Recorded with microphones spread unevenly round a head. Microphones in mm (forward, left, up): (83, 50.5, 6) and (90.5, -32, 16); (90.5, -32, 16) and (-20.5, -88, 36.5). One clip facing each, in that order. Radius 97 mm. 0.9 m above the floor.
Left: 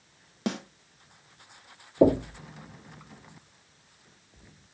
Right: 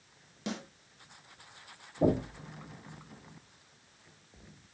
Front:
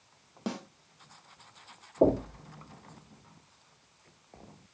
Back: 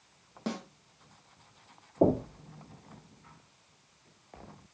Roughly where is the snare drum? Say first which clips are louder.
Left 7 dB, even; left.